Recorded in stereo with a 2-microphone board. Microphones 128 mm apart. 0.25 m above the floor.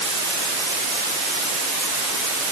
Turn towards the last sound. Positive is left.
No sound to turn to.